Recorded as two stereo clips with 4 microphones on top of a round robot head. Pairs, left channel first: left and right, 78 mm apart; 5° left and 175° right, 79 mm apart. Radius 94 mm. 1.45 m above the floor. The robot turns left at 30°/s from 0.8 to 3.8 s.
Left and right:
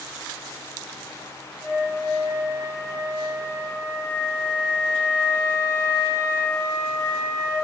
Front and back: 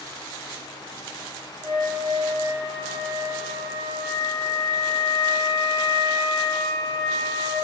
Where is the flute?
170° right, 1.6 m; by 7.5 s 125° left, 1.6 m.